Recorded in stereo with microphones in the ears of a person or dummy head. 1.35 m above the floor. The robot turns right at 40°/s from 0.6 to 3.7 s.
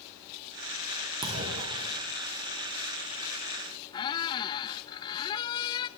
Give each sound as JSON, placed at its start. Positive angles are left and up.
{"t": 1.2, "sound": "a clunk", "side_deg": -20, "distance_m": 1.8}
{"t": 3.9, "sound": "a squeak", "side_deg": 25, "distance_m": 0.7}